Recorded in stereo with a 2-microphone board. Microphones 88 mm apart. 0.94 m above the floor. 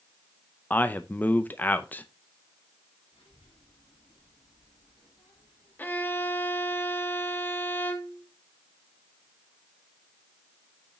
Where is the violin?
20° left (ahead or behind), 1.1 m.